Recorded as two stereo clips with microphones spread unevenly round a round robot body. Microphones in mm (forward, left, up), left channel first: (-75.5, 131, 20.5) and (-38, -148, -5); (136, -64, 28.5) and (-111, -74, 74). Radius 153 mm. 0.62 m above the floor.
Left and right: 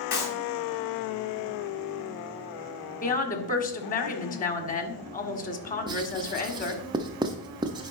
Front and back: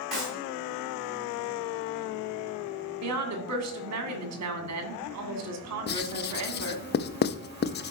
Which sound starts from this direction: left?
A clap, at 0.1 s.